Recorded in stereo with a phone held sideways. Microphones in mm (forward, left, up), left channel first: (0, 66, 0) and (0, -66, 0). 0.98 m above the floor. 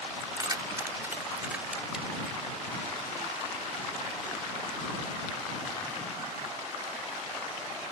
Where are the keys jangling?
40° right (ahead or behind); by 2.4 s 5° right (ahead or behind).